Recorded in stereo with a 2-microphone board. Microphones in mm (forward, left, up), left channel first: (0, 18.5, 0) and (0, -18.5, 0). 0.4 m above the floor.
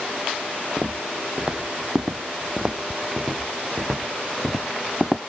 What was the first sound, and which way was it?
Footsteps, 35° right (ahead or behind).